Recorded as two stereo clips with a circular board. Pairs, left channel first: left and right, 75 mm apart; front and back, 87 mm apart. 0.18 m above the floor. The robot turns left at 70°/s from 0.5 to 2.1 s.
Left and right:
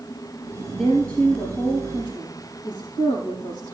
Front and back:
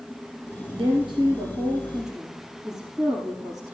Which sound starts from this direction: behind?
A woman speaking, at 0.7 s.